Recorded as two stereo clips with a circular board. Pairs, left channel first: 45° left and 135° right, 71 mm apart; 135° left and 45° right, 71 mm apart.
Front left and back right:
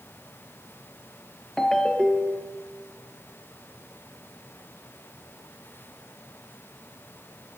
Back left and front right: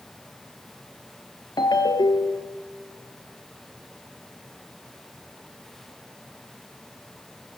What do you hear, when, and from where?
1.6 s a ringtone: 130° left, 1.9 m